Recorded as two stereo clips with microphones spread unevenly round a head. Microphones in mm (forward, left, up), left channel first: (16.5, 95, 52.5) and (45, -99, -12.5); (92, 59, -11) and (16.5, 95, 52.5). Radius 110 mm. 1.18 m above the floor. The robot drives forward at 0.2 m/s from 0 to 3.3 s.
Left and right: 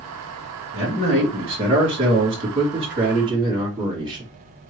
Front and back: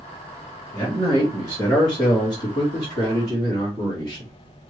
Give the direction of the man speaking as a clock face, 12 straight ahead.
5 o'clock.